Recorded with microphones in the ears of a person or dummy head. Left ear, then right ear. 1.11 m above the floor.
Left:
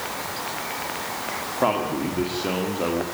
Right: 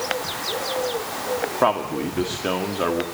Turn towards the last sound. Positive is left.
turn(degrees=-40)  # may be behind; listen again after turning